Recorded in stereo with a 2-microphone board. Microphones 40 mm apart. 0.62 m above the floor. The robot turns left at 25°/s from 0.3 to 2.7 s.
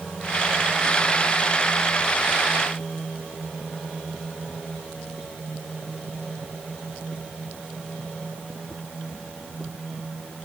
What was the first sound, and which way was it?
Only background noise.